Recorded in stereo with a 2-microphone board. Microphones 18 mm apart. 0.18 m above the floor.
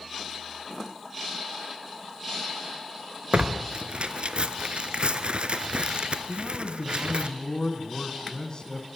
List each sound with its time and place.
3.3 s tearing paper: 70° right (ahead or behind), 0.7 m
6.3 s a man speaking: 40° left (ahead or behind), 1.4 m